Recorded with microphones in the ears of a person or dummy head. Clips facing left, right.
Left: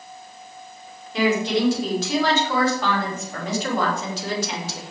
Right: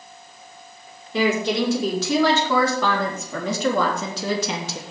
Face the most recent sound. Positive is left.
turn(degrees=-70)  # may be behind; listen again after turning